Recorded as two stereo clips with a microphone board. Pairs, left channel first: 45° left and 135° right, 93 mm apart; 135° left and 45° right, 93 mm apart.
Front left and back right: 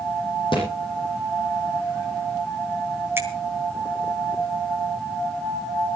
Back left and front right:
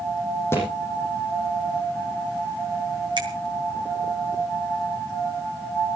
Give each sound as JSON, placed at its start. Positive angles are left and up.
{"t": 0.5, "sound": "a thud", "azimuth_deg": 70, "distance_m": 7.5}
{"t": 3.2, "sound": "a finger snap", "azimuth_deg": -70, "distance_m": 3.0}